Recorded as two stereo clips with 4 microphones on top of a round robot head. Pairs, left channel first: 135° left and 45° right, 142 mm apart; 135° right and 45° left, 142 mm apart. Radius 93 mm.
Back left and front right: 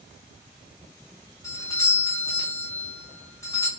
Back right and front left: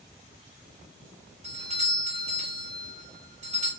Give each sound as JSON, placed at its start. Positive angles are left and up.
{"t": 1.4, "sound": "a doorbell", "azimuth_deg": 70, "distance_m": 3.0}